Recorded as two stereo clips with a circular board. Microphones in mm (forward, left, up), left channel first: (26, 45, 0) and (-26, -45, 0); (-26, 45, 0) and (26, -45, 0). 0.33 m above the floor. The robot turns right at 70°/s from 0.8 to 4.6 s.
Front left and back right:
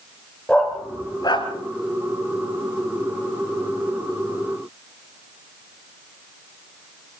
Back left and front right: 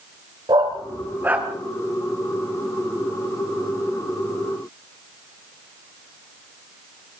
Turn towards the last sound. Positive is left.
turn(degrees=-115)